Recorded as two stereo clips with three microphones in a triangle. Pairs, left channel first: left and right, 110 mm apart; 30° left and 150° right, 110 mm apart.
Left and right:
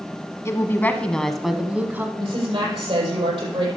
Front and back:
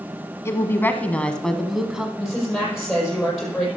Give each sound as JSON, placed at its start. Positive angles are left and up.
{"t": 0.5, "sound": "a woman speaking", "azimuth_deg": 65, "distance_m": 1.2}
{"t": 2.2, "sound": "a woman speaking", "azimuth_deg": -60, "distance_m": 7.0}